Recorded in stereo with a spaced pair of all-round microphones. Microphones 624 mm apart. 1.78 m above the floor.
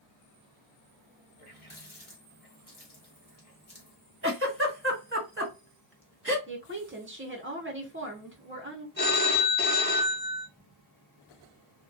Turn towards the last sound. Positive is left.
turn(degrees=15)  # may be behind; listen again after turning